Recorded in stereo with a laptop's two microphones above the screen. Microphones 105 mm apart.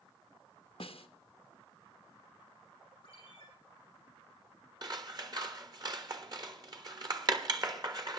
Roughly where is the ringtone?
Left.